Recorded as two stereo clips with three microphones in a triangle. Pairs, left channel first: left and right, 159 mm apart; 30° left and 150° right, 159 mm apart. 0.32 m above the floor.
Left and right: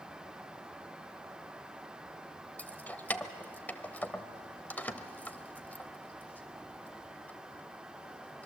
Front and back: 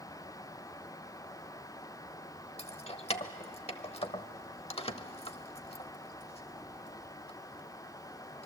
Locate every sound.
2.6 s keys jangling: 20° left, 0.8 m